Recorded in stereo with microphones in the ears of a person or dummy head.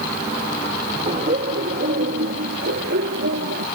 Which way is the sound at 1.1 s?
35° right (ahead or behind).